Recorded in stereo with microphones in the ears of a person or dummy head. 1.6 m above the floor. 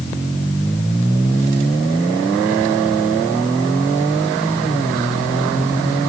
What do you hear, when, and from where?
Only background noise.